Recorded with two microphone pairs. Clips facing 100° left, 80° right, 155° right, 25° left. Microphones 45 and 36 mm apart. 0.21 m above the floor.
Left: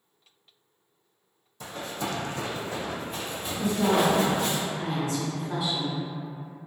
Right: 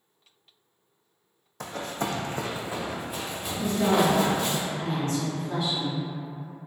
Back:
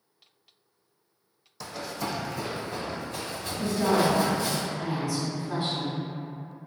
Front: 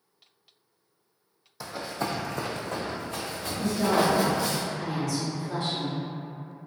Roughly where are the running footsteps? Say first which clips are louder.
Right 2 dB, front 2 dB; ahead right.